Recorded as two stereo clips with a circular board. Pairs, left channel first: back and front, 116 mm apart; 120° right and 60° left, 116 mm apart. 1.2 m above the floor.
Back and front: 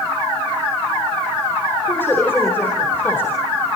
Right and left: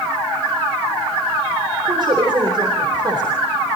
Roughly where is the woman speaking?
Left.